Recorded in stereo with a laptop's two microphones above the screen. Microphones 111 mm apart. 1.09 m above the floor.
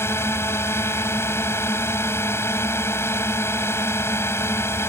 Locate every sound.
0.0 s a drone: 20° left (ahead or behind)